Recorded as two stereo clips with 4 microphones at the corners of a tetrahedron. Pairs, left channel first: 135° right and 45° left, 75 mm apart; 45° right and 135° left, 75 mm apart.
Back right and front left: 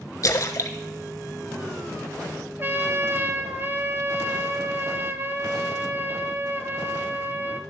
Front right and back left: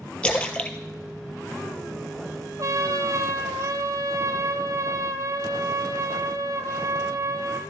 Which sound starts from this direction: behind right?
A splash, at 0.2 s.